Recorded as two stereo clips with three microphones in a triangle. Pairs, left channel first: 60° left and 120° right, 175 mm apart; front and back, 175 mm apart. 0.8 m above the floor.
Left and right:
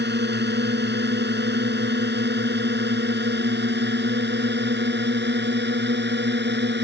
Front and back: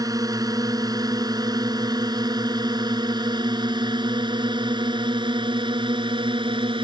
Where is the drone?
110° right; by 6.8 s 120° right.